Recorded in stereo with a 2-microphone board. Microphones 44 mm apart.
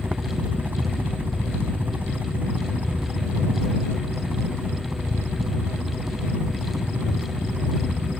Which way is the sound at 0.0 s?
45° right (ahead or behind).